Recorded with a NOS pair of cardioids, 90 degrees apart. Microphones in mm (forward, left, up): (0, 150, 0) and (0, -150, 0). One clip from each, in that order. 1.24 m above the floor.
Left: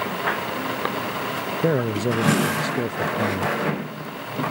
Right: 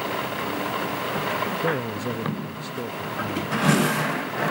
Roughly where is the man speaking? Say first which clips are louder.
Left 4 dB; ahead left.